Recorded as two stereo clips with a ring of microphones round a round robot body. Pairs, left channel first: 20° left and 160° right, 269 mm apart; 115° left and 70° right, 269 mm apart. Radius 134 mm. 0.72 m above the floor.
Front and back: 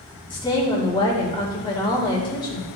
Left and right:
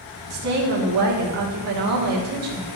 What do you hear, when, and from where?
0.3 s a woman speaking: 50° right, 2 m